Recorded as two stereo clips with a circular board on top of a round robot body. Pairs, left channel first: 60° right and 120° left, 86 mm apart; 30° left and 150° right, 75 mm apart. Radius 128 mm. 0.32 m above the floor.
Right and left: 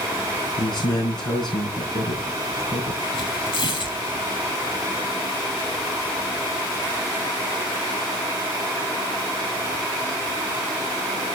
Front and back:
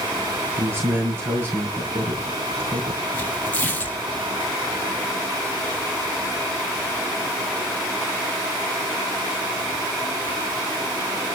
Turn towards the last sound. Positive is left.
turn(degrees=-40)